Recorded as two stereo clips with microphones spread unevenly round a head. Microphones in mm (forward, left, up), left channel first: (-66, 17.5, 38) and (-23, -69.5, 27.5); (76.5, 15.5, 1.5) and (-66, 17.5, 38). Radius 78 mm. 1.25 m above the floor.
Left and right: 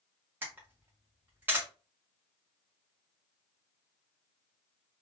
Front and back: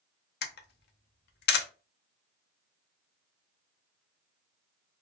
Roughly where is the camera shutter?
Ahead.